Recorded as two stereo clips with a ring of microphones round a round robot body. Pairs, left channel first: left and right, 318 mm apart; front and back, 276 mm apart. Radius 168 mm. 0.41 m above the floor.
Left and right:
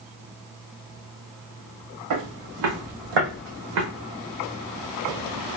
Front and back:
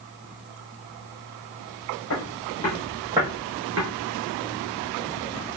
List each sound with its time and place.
2.1 s footsteps: 55° right, 1.4 m; by 3.9 s 130° right, 1.4 m